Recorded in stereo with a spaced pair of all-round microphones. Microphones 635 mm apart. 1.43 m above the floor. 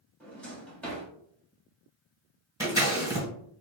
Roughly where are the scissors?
Centre.